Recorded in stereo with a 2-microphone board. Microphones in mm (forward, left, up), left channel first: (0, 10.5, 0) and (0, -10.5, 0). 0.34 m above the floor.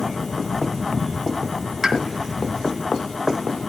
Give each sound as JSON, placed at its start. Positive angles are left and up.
{"t": 1.8, "sound": "a pop", "side_deg": -25, "distance_m": 2.0}